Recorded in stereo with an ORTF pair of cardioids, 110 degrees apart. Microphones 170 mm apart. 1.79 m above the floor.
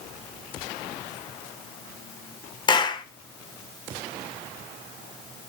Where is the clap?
25° left, 1.7 m.